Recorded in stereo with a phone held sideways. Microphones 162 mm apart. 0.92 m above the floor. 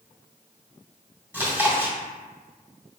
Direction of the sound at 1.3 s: 15° right (ahead or behind).